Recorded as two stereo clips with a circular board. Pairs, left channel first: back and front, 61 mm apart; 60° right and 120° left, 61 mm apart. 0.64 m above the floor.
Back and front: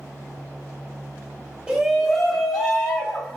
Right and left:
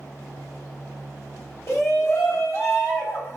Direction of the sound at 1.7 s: 70° right.